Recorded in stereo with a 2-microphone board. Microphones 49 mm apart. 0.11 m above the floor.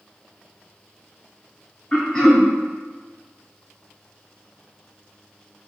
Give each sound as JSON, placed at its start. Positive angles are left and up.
{"t": 1.9, "sound": "throat clearing", "side_deg": 20, "distance_m": 0.7}